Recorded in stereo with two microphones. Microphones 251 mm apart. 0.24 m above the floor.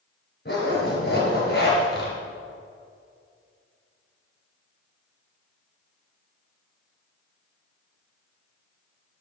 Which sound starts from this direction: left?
A zipper, at 0.5 s.